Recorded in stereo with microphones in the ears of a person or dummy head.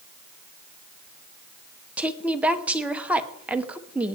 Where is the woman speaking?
5° right (ahead or behind), 1.1 m.